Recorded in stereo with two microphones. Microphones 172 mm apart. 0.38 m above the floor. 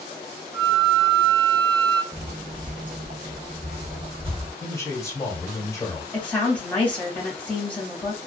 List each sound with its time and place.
0.5 s a flute: 30° right (ahead or behind), 0.6 m
2.1 s footsteps: 30° right (ahead or behind), 0.5 m
4.6 s a man speaking: 15° left (ahead or behind), 1.0 m
6.1 s a woman speaking: 5° left (ahead or behind), 1.2 m